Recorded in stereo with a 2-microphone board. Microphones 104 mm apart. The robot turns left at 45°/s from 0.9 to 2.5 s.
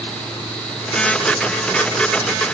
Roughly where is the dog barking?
I don't hear a dog barking.